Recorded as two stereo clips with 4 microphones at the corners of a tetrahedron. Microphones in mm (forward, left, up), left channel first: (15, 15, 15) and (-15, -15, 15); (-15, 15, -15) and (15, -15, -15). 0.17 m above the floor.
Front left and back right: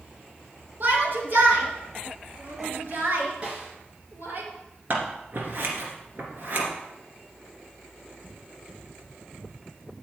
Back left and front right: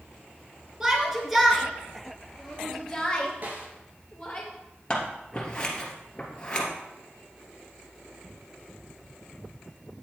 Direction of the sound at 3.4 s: 80° right.